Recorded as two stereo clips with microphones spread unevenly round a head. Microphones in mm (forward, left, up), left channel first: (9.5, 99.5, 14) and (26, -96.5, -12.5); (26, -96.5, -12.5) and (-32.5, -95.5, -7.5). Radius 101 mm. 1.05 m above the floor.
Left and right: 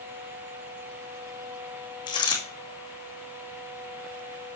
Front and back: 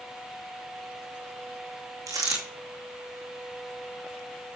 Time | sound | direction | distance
2.1 | a dropped coin | 160° left | 2.5 m